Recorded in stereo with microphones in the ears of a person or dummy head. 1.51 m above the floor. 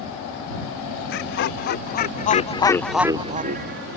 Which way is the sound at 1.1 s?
60° left (ahead or behind).